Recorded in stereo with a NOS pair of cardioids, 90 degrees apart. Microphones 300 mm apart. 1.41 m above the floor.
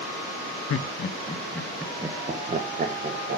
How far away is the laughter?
About 0.8 m.